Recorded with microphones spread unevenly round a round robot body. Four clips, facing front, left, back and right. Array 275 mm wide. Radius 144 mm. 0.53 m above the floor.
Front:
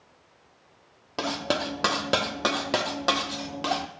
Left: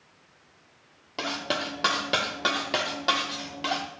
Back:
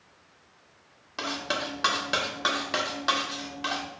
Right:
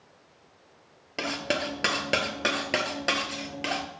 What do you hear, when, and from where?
1.2 s cutlery clinking: straight ahead, 0.5 m